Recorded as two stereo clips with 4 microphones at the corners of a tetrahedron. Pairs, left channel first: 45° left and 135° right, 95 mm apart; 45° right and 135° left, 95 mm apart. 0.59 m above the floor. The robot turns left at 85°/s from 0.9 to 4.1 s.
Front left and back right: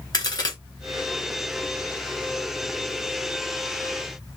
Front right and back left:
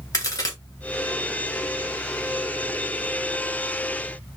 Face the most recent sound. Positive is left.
turn(degrees=95)